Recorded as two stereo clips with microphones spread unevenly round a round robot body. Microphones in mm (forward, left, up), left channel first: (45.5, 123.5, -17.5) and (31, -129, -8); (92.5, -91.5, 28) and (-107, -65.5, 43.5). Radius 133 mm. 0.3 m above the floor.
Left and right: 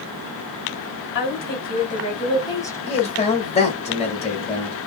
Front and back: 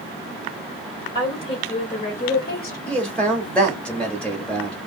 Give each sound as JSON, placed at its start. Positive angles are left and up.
{"t": 1.1, "sound": "a woman speaking", "azimuth_deg": 55, "distance_m": 1.5}
{"t": 2.9, "sound": "a man speaking", "azimuth_deg": 65, "distance_m": 1.1}